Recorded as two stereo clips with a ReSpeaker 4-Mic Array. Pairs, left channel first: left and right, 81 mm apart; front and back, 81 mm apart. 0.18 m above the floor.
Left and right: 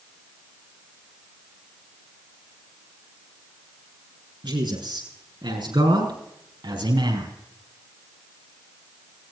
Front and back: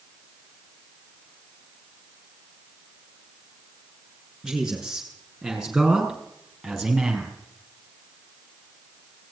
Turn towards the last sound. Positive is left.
turn(degrees=-90)